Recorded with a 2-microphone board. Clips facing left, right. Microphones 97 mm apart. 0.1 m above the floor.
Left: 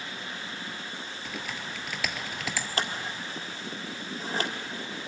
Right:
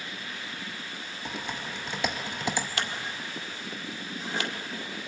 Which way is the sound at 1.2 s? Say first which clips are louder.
Right 3 dB; 25° right (ahead or behind).